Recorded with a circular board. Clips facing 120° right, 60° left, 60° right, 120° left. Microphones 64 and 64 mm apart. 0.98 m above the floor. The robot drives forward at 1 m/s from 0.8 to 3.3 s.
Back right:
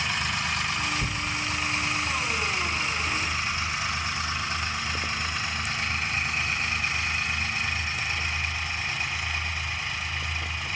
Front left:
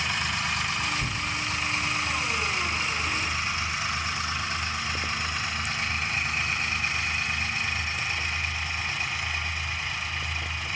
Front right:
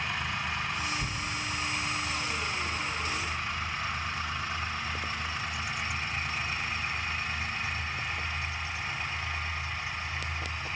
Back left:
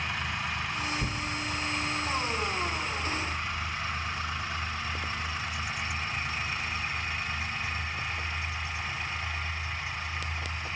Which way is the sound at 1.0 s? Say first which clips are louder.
Even, back left 1 dB; 175° left.